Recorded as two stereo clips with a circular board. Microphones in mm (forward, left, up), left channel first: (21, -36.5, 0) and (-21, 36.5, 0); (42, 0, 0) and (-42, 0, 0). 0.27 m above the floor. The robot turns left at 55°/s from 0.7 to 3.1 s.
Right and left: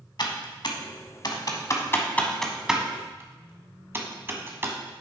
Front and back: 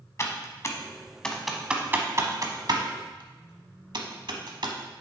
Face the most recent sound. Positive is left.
turn(degrees=180)